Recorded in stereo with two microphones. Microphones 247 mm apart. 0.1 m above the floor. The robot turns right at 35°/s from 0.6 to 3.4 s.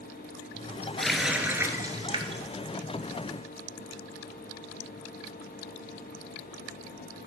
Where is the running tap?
175° left, 0.9 m; by 2.4 s 135° right, 0.9 m.